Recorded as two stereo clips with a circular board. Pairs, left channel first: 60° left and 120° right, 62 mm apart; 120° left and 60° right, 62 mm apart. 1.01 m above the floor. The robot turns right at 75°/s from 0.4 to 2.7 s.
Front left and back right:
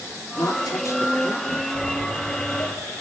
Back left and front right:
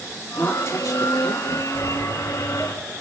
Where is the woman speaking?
60° left, 3 m; by 1.6 s 150° left, 3 m.